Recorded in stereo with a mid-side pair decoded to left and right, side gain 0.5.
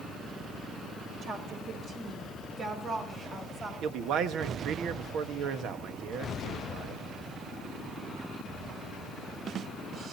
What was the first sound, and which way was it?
A woman speaking, 65° right.